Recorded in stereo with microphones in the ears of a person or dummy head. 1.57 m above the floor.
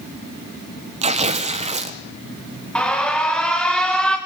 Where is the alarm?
5° left (ahead or behind), 2.5 m.